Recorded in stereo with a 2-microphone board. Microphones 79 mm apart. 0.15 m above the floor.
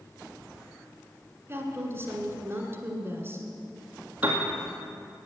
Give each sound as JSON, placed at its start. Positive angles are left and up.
{"t": 1.5, "sound": "a woman speaking", "side_deg": -30, "distance_m": 1.7}
{"t": 4.2, "sound": "a piano", "side_deg": -20, "distance_m": 2.0}